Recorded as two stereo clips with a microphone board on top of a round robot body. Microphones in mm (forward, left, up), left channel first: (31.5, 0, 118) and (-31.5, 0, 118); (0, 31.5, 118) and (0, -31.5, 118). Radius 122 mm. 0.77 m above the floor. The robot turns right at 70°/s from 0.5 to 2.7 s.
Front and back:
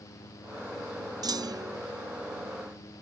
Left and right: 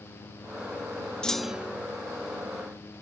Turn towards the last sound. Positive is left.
turn(degrees=-85)